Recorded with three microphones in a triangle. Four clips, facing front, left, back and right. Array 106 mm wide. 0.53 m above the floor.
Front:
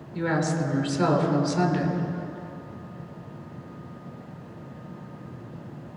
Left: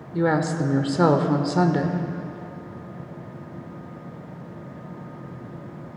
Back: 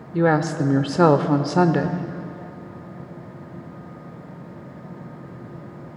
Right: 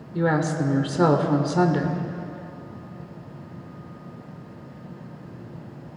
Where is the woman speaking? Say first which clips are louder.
Left 1 dB, back 7 dB; 175° left, 1.2 m.